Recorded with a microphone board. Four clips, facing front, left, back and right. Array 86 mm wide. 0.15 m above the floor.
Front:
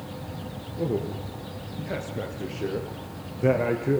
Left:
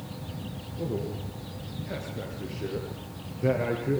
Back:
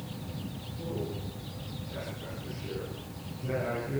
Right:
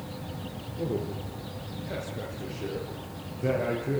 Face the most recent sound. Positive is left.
turn(degrees=10)